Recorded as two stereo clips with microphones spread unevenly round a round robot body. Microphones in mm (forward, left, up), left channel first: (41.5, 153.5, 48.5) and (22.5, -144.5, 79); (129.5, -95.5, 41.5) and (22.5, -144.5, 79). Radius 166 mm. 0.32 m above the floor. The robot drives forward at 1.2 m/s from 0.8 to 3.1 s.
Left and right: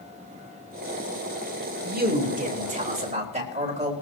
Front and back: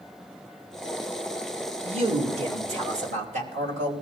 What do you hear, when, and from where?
1.8 s a man speaking: 135° right, 1.8 m; by 3.9 s 160° right, 3 m